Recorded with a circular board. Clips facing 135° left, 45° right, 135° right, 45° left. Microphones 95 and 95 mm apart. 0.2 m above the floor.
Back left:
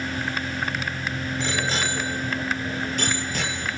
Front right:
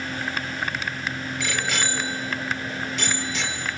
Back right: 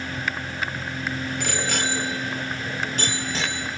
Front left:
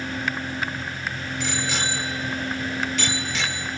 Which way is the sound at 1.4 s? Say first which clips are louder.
Back left 1 dB, front left 1 dB; 165° right.